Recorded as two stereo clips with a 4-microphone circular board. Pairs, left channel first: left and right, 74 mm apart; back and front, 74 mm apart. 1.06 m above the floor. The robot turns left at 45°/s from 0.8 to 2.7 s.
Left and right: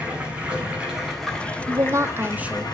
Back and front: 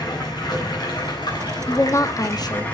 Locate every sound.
0.0 s running water: 165° right, 9 m; by 2.8 s 110° left, 9 m
1.7 s a woman speaking: 125° right, 1.5 m; by 2.6 s 170° right, 1.5 m